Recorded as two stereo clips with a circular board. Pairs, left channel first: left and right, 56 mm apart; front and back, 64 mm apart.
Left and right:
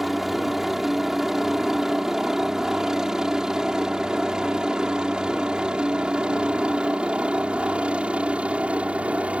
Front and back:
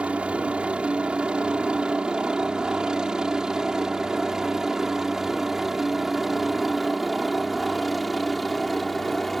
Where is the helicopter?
165° right; by 9.4 s 85° right.